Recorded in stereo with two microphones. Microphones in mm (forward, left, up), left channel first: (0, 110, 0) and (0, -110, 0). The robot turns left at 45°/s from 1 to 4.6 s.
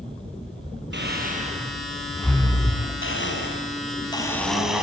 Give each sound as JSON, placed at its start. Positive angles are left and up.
{"t": 0.9, "sound": "breathing", "side_deg": -55, "distance_m": 4.5}
{"t": 3.0, "sound": "a blender", "azimuth_deg": 70, "distance_m": 5.5}